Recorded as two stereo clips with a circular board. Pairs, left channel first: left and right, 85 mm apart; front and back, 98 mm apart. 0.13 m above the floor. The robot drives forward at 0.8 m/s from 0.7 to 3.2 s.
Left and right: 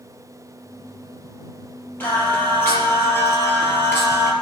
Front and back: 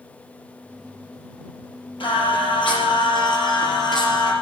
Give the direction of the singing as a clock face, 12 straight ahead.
11 o'clock.